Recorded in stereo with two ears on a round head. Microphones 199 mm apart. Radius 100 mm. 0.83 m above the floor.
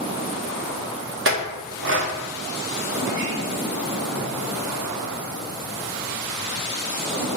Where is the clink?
55° right (ahead or behind), 0.7 m.